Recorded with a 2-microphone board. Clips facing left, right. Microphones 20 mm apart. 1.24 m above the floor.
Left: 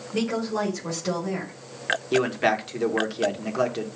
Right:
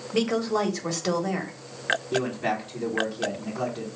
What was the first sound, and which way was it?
A woman speaking, 30° right (ahead or behind).